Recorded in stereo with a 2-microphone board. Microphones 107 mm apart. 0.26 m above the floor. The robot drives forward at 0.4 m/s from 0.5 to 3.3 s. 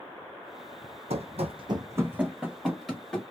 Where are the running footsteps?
65° right (ahead or behind), 0.6 m; by 3.2 s 5° left (ahead or behind), 1.5 m.